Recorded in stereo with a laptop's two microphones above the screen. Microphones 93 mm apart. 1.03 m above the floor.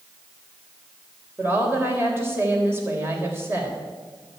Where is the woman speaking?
25° right (ahead or behind), 3.5 m.